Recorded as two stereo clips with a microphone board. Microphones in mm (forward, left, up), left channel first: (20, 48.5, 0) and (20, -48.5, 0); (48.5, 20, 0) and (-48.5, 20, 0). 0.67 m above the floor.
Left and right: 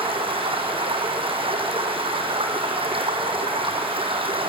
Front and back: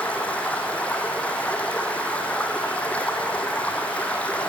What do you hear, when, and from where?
0.0 s running water: 75° right, 2.5 m